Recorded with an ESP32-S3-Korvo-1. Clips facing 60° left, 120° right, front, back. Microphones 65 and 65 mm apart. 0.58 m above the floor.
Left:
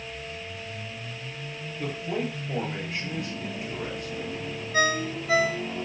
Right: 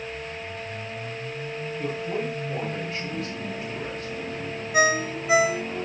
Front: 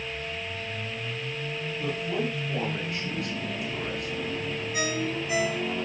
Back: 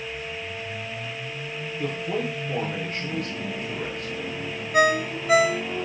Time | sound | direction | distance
1.8 | a man speaking | 130° left | 9 m
4.7 | a ringtone | 165° left | 0.6 m